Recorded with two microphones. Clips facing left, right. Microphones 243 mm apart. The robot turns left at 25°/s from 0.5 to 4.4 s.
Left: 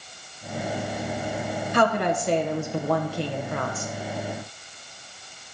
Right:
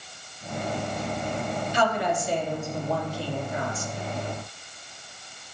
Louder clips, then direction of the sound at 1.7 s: Left 4 dB; 115° left.